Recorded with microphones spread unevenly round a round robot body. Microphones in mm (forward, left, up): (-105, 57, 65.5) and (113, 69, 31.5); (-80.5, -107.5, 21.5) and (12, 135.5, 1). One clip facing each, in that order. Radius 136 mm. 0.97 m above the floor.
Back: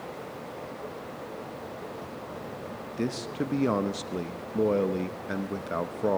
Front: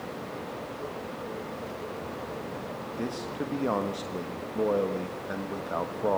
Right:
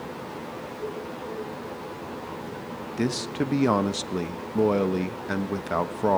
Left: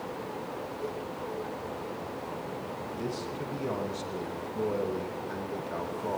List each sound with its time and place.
3.0 s a man speaking: 105° right, 1.1 m